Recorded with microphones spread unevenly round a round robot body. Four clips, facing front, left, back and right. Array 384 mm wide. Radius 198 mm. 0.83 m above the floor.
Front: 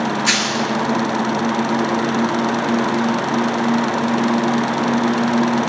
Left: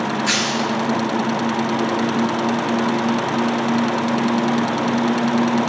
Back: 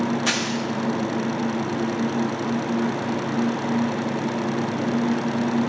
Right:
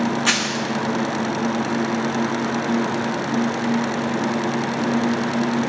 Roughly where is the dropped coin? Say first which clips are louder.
Left 2 dB, front 5 dB; right.